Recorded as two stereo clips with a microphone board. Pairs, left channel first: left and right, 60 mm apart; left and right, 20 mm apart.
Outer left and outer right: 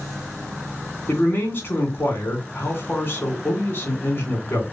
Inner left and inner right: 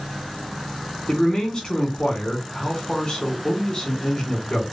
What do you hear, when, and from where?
1.1 s a man speaking: 35° left (ahead or behind), 2.5 m